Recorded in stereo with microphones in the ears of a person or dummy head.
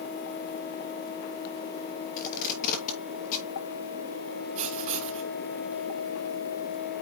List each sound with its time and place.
2.2 s tape being pulled: 45° left (ahead or behind), 2 m
4.5 s writing: 35° right (ahead or behind), 4.5 m